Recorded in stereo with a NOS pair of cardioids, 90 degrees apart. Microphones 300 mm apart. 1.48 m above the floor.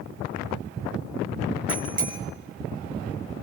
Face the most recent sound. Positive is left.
turn(degrees=-25)